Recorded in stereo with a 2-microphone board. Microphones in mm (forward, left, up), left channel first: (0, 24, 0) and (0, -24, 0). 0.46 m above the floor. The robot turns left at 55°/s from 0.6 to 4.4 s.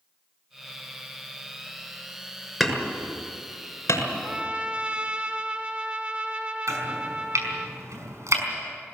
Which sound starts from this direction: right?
Chopping, at 6.7 s.